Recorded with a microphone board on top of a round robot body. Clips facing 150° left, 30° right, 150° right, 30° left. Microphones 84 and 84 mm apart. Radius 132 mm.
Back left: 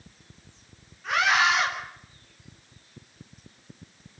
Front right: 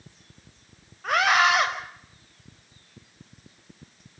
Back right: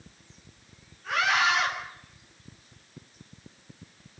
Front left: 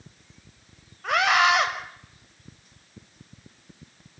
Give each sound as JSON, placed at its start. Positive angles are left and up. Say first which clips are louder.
{"t": 1.0, "sound": "a scream", "louder": "front right 2 dB, front left 5 dB", "azimuth_deg": 10, "distance_m": 5.5}